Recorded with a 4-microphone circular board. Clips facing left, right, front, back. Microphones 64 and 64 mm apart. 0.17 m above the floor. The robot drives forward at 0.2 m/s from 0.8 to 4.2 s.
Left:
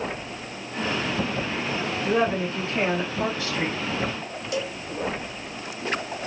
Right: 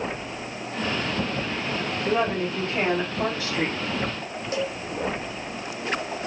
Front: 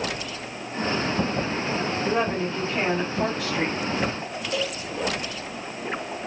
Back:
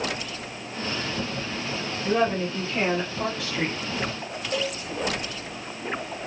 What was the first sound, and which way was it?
A woman speaking, 65° right.